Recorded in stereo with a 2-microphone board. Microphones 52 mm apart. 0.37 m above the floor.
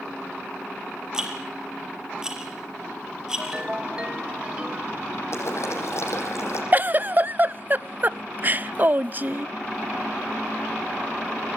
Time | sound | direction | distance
1.1 | a rattle | 15° right (ahead or behind) | 5 m
3.4 | a ringtone | 20° right (ahead or behind) | 1.4 m
5.3 | boiling | 60° left (ahead or behind) | 7.5 m
6.7 | a giggle | 35° right (ahead or behind) | 0.5 m